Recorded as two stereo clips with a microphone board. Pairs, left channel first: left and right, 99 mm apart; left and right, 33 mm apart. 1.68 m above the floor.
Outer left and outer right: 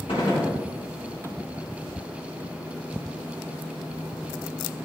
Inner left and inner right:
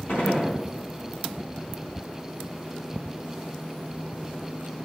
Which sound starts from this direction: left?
A gunshot, at 0.1 s.